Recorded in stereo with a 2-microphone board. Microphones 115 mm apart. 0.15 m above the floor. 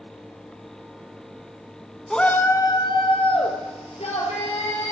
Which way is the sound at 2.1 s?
5° left (ahead or behind).